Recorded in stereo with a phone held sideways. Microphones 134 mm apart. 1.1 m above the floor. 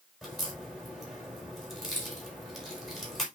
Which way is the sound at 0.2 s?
Centre (ahead or behind).